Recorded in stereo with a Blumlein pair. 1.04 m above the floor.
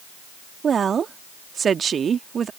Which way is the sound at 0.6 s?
20° right.